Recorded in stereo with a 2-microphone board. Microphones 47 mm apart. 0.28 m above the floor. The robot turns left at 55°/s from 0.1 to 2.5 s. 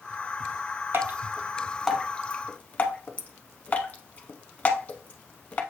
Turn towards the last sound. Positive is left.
turn(degrees=30)  # may be behind; listen again after turning